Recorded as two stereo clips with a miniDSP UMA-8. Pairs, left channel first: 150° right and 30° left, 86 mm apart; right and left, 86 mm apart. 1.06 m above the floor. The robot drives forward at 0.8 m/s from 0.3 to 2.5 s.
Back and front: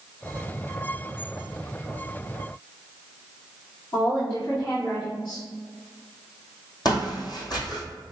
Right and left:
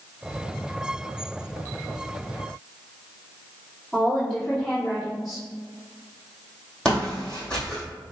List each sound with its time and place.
3.9 s a woman speaking: 175° left, 1.7 m
6.8 s footsteps: 170° right, 1.9 m